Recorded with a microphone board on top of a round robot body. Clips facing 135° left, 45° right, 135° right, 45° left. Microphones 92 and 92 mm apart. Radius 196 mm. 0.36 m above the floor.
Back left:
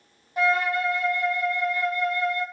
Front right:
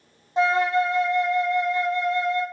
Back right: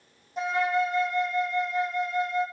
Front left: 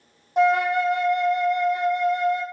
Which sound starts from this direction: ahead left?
A flute, at 0.4 s.